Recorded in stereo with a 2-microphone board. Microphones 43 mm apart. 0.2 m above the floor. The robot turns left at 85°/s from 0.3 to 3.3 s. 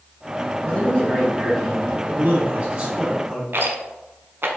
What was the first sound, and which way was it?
A man speaking, 85° left.